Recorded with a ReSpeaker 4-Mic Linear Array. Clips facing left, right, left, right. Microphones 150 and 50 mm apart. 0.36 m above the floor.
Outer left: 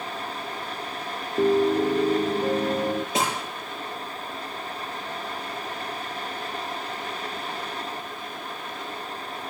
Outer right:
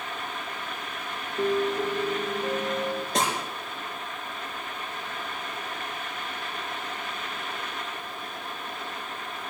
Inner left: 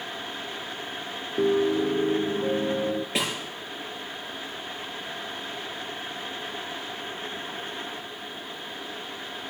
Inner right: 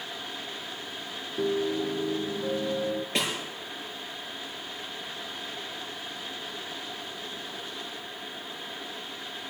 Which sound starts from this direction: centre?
A snare drum, at 3.1 s.